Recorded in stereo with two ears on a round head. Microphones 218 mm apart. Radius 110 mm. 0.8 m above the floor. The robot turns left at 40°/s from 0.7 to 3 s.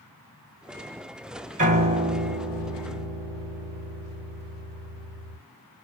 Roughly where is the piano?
Behind right.